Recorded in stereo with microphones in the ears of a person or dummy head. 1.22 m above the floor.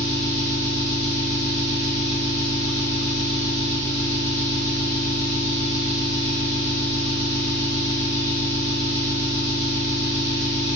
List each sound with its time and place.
0.0 s an engine running: 70° left (ahead or behind), 1.5 m